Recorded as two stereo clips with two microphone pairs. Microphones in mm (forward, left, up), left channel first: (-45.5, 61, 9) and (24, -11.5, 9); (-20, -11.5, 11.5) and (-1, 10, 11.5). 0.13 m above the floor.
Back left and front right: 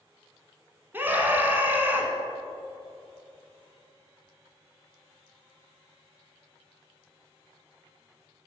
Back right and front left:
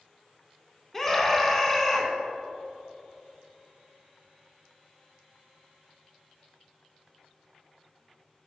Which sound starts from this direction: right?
A scream, at 0.9 s.